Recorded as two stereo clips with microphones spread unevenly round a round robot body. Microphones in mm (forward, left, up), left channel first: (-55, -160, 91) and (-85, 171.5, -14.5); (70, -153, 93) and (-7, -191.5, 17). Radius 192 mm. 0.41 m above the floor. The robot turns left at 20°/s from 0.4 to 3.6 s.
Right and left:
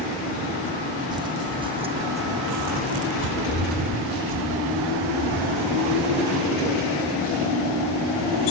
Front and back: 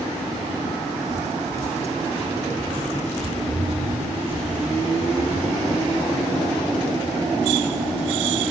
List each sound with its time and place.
1.1 s footsteps: straight behind, 0.9 m; by 7.5 s 155° left, 4.5 m